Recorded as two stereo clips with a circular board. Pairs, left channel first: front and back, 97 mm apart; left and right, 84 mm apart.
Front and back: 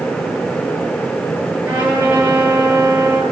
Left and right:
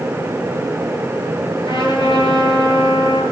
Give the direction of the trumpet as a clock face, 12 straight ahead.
8 o'clock.